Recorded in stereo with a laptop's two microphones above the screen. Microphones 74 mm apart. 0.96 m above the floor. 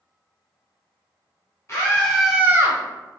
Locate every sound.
1.7 s a scream: 40° left (ahead or behind), 0.8 m; by 2.8 s 40° right (ahead or behind), 0.9 m